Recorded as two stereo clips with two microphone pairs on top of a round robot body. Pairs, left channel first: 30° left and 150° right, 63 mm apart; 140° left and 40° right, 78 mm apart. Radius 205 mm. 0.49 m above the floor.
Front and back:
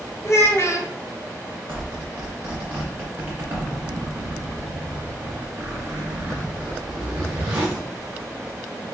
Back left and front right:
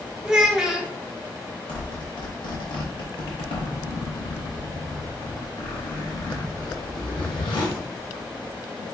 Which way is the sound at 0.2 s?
45° left.